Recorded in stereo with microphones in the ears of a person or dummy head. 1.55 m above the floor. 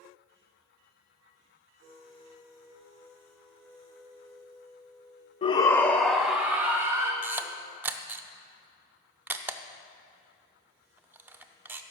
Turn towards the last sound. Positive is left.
turn(degrees=-10)  # may be behind; listen again after turning